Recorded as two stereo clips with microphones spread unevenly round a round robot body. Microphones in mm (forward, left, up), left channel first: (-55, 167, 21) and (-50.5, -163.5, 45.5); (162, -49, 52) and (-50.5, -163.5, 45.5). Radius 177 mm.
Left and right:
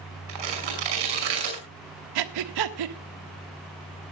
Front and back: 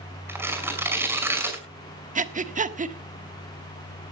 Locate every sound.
0.3 s tearing paper: 70° right, 5.5 m
2.1 s breathing: 95° right, 1.4 m